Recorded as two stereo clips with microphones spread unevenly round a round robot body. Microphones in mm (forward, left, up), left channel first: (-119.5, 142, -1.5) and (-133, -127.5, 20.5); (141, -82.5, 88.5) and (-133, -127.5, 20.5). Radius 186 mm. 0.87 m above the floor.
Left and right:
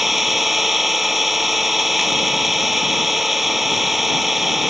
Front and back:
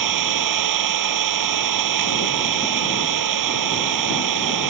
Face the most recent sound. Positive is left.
turn(degrees=180)